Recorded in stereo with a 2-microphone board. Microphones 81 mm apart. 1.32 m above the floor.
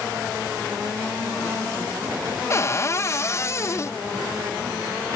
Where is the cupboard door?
35° left (ahead or behind), 0.5 m.